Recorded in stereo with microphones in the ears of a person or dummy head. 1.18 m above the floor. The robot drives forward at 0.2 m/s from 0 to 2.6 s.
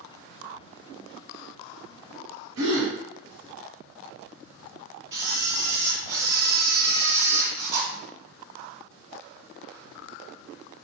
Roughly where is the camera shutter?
Right.